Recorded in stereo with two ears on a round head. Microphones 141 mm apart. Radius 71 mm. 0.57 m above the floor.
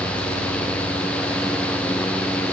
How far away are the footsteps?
I don't hear footsteps.